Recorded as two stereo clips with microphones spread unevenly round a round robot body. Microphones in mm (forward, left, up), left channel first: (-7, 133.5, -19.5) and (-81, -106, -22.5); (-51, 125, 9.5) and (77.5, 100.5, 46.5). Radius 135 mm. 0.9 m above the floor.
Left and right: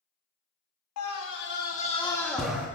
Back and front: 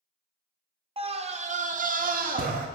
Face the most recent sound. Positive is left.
turn(degrees=-25)